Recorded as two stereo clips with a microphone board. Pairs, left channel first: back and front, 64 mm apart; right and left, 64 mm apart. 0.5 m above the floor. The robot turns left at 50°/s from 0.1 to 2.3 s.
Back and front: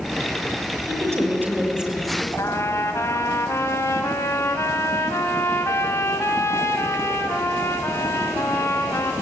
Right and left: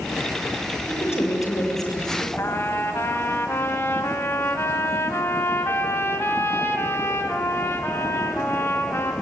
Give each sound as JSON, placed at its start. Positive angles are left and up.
{"t": 0.9, "sound": "a woman speaking", "azimuth_deg": -30, "distance_m": 7.0}
{"t": 2.4, "sound": "a trumpet", "azimuth_deg": -140, "distance_m": 2.0}